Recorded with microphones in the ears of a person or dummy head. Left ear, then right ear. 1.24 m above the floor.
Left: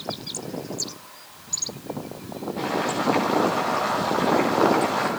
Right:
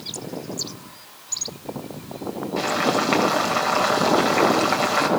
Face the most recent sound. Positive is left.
turn(degrees=-65)  # may be behind; listen again after turning